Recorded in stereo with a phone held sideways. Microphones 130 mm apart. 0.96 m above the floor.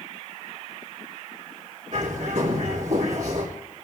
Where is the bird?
70° right (ahead or behind), 3.5 m.